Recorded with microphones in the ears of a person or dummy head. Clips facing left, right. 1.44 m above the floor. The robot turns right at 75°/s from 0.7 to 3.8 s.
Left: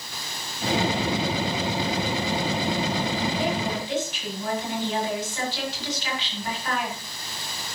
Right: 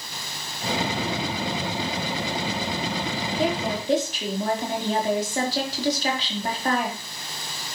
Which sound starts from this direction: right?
A woman speaking, at 3.4 s.